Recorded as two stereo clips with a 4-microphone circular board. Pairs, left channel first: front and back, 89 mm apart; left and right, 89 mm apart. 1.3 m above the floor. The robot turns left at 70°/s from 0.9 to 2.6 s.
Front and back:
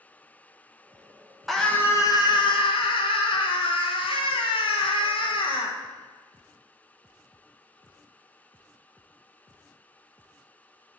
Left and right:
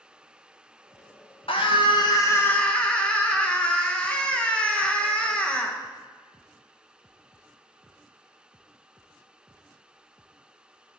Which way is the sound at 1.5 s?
90° left.